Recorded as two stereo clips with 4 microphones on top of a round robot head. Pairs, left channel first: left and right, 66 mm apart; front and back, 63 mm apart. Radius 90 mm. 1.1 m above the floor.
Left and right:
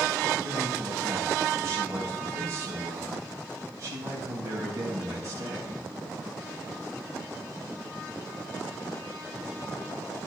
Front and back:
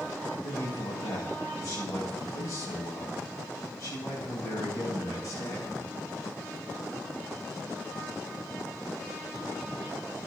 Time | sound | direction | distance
0.4 | a man speaking | 40° right | 4 m